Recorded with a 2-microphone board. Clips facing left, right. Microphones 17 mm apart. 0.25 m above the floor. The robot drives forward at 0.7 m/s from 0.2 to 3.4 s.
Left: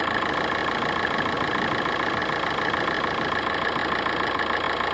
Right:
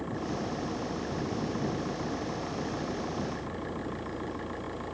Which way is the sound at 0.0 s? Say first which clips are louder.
Left 10 dB; 65° left (ahead or behind).